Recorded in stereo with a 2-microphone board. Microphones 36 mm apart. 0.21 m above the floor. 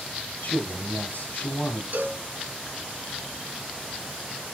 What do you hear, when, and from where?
0.4 s a man speaking: 60° left (ahead or behind), 5 m
1.9 s a cowbell: 60° right (ahead or behind), 3 m